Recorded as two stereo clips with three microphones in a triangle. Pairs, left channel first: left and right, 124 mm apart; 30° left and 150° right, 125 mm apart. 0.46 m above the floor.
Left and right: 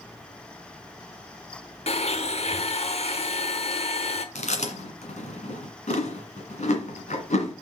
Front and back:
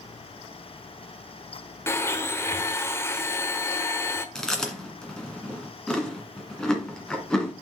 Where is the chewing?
115° left, 1.6 m.